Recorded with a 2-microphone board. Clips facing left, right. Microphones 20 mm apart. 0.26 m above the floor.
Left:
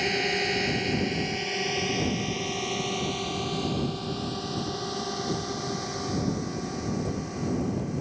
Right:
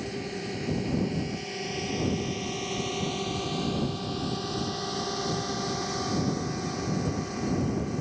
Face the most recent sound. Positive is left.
turn(degrees=-10)  # may be behind; listen again after turning